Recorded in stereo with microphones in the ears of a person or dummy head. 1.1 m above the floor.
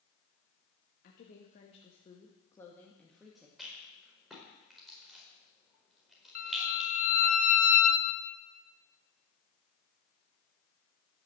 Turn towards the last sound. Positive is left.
turn(degrees=35)  # may be behind; listen again after turning